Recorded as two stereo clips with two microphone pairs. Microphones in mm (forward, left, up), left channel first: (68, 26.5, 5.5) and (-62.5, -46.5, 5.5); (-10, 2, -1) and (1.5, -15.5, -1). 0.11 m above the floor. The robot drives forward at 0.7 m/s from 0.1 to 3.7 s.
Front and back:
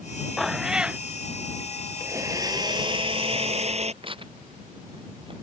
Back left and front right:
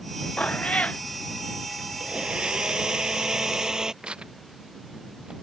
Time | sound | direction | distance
0.4 | a cat meowing | 120° left | ?
2.0 | a blender | 80° right | ?
4.0 | tearing paper | 95° right | ?